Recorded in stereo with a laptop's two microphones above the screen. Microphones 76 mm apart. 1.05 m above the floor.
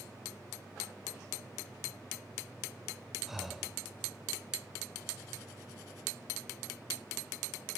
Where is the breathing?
5° right (ahead or behind), 0.8 m.